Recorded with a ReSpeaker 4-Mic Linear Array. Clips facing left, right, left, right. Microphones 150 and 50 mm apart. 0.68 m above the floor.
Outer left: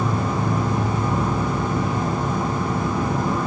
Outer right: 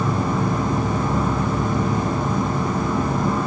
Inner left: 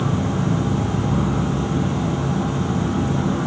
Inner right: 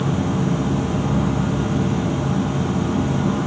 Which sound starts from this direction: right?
An insect, at 0.0 s.